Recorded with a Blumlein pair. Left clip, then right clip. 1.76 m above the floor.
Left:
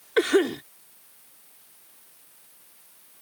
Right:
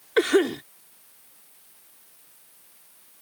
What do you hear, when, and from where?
0.2 s a cough: 5° right